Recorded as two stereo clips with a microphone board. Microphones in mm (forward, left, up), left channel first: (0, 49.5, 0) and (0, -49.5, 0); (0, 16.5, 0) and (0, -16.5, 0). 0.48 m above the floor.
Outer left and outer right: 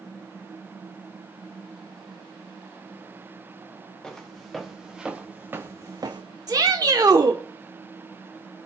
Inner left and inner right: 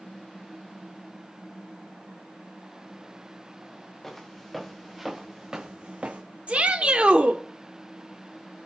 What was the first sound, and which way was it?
Footsteps, 5° left (ahead or behind).